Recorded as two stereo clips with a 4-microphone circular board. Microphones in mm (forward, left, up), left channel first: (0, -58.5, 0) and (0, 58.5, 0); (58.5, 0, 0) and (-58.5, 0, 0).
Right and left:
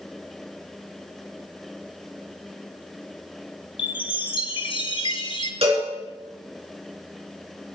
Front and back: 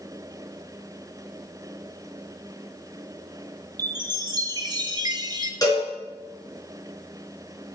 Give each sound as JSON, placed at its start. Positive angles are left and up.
{"t": 3.8, "sound": "a chime", "azimuth_deg": -130, "distance_m": 0.9}
{"t": 5.6, "sound": "a cowbell", "azimuth_deg": 55, "distance_m": 4.5}